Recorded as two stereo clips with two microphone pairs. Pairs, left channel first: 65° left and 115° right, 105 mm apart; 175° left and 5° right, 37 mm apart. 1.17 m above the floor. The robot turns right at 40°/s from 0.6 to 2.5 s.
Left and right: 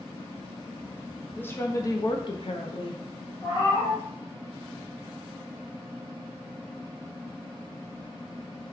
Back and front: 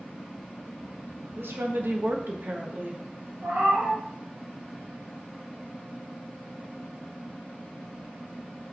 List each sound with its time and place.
1.4 s a woman speaking: 15° right, 0.6 m; by 3.0 s 30° left, 0.6 m
3.4 s a cat meowing: 20° left, 1.4 m